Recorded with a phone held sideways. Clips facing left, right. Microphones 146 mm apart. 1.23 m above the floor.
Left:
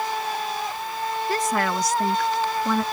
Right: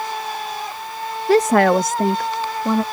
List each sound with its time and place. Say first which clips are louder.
1.3 s a woman speaking: right 12 dB; 75° right (ahead or behind); by 2.8 s 30° right (ahead or behind)